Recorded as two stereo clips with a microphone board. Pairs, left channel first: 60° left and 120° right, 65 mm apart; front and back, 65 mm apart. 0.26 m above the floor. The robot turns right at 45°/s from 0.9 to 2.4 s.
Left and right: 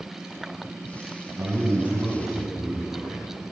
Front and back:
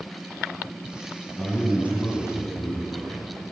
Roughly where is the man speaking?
Right.